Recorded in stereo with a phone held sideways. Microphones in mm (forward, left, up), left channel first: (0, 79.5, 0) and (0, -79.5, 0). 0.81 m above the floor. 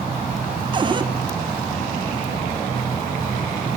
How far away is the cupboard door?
About 1.8 m.